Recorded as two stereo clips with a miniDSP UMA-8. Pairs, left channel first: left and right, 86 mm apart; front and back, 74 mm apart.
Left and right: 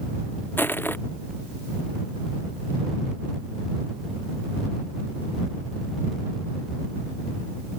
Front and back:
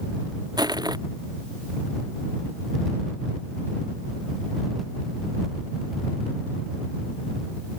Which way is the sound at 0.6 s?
155° left.